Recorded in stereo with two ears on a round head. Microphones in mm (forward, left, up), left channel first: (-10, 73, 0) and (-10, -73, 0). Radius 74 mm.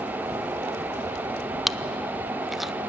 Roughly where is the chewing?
Centre.